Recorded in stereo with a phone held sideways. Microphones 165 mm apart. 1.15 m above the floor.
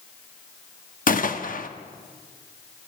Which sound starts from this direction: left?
A gunshot, at 1.1 s.